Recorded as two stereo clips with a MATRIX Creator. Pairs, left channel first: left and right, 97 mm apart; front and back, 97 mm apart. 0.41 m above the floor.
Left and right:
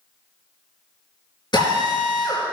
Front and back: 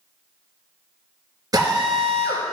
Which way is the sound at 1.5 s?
130° left.